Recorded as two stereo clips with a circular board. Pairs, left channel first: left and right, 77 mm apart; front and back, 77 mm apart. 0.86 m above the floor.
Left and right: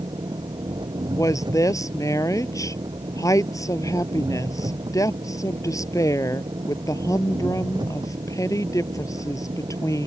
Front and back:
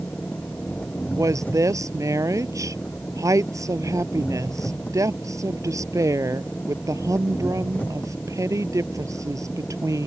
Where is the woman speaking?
135° left.